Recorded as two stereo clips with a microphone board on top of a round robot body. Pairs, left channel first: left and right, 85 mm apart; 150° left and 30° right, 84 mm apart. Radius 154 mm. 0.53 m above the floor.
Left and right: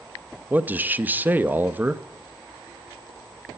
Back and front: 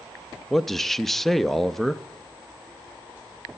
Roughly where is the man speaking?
Behind right.